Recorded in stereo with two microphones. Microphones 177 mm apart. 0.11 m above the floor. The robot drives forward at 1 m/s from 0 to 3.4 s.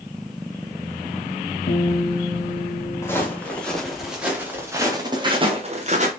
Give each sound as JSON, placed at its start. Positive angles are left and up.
{"t": 1.7, "sound": "a guitar", "side_deg": 55, "distance_m": 2.5}
{"t": 3.0, "sound": "footsteps", "side_deg": 15, "distance_m": 3.0}